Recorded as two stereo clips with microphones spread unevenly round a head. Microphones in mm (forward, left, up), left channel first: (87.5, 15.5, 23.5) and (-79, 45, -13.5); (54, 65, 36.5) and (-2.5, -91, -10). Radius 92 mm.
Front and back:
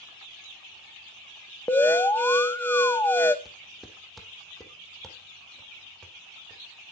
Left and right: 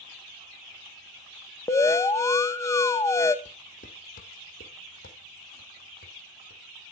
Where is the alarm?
40° left, 0.8 m.